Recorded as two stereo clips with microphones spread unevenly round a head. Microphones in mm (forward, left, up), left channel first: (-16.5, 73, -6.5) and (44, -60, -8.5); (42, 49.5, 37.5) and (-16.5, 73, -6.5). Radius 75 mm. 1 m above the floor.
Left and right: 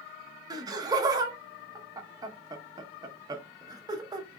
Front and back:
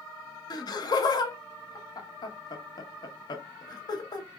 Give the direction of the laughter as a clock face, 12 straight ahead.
12 o'clock.